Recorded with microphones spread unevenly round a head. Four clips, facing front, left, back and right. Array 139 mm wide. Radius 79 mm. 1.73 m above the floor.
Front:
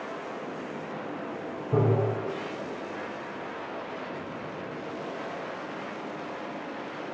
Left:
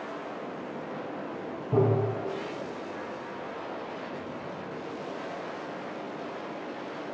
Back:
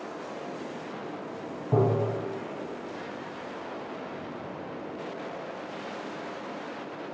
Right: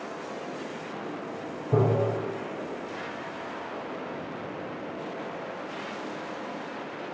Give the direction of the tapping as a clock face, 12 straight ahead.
7 o'clock.